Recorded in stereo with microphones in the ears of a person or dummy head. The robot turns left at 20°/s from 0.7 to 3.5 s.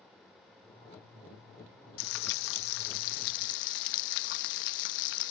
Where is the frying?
100° left; by 5.3 s 70° left.